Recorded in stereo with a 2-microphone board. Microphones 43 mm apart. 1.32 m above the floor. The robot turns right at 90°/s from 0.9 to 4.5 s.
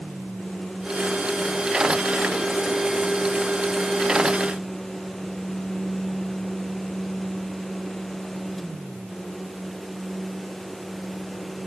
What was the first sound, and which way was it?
Only background noise.